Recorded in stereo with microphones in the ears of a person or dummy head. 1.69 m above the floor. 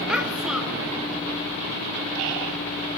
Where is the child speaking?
5° right (ahead or behind), 3 m.